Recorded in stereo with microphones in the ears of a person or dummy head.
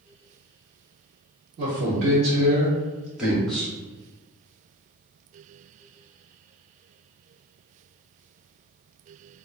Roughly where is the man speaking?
Right.